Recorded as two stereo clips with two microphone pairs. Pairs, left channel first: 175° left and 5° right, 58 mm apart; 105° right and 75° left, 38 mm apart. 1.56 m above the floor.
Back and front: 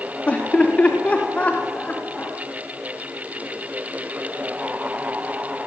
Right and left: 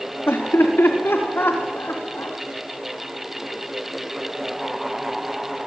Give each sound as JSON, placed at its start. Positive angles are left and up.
{"t": 0.3, "sound": "laughter", "azimuth_deg": -115, "distance_m": 3.5}